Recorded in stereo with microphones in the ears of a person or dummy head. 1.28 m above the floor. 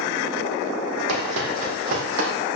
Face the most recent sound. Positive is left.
turn(degrees=-65)  # may be behind; listen again after turning